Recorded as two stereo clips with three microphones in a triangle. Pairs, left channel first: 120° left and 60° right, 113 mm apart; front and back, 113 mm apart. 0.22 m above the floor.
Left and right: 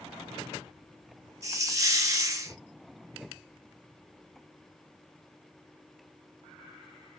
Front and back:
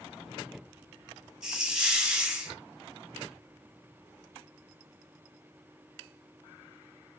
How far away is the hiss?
About 1.2 m.